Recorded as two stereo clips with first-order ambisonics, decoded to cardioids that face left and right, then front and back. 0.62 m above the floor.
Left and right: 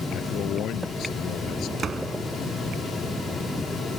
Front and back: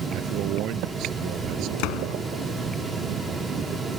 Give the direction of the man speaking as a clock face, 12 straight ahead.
7 o'clock.